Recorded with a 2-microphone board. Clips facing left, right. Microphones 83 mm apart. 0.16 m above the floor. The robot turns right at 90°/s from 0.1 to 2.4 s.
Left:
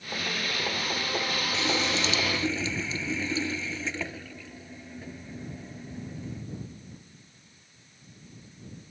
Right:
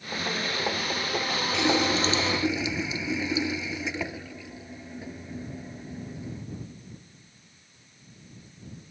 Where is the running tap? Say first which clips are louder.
Right 6 dB; 90° right; by 6.5 s 15° right.